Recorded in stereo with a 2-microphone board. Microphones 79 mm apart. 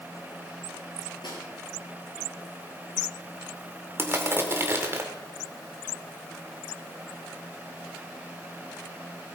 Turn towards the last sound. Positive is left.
turn(degrees=-30)  # may be behind; listen again after turning